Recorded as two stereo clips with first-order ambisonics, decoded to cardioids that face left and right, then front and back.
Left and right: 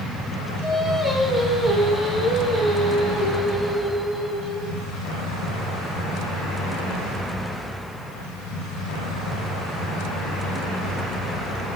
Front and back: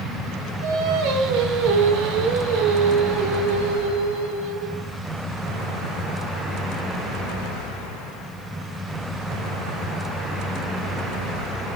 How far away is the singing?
About 0.7 m.